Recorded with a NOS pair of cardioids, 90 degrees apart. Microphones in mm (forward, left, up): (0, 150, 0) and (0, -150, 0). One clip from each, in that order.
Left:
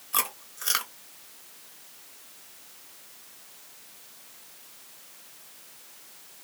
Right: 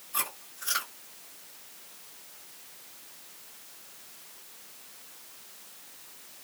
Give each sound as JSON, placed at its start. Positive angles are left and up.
{"t": 0.1, "sound": "chewing", "azimuth_deg": 70, "distance_m": 1.3}